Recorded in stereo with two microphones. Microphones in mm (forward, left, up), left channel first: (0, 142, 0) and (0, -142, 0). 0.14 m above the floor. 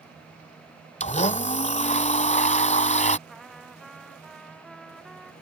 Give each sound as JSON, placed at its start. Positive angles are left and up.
{"t": 1.0, "sound": "a blender", "side_deg": 25}
{"t": 3.3, "sound": "a trumpet", "side_deg": 0}